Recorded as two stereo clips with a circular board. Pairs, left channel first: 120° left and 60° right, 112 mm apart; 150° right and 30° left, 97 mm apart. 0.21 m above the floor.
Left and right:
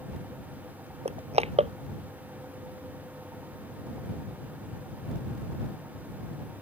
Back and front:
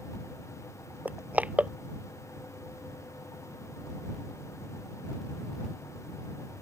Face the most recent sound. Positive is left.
turn(degrees=-45)